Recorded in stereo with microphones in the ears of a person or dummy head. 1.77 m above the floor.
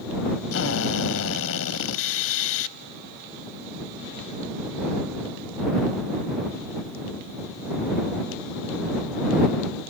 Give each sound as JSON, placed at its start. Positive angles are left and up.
{"t": 0.5, "sound": "a drill", "side_deg": 80}